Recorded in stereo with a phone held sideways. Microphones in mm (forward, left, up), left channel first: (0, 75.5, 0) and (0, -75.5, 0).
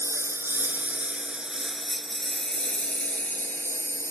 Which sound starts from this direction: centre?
A lawn mower, at 0.0 s.